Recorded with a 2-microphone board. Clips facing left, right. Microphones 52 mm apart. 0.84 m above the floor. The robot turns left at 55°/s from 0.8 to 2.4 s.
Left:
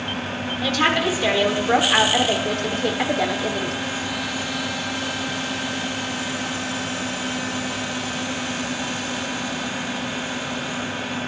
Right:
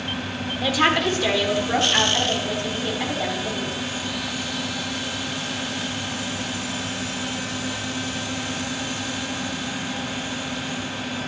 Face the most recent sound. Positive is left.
turn(degrees=100)